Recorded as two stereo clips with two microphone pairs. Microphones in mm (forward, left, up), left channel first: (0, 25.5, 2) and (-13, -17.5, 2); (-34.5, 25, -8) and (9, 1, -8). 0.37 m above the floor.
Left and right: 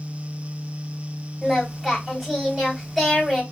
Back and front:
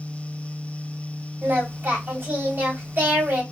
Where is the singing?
20° right, 1.8 m.